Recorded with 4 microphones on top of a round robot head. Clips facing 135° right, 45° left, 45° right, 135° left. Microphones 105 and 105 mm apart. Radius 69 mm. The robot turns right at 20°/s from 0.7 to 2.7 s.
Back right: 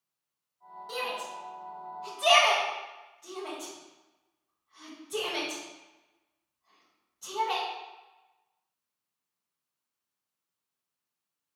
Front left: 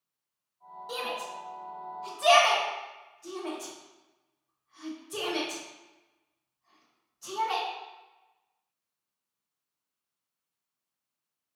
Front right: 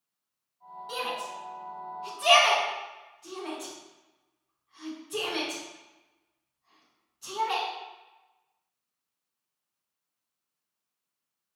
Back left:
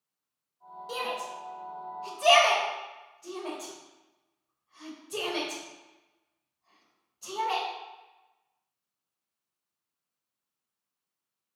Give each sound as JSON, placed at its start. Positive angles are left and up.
{"t": 0.9, "sound": "a shout", "azimuth_deg": 120, "distance_m": 1.0}